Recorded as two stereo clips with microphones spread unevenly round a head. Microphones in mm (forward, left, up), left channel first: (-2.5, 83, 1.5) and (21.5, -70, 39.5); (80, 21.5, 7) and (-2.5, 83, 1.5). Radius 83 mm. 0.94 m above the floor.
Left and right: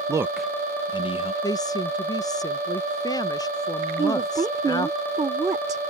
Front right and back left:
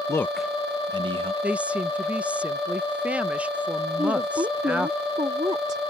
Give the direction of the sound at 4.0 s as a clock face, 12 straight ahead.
5 o'clock.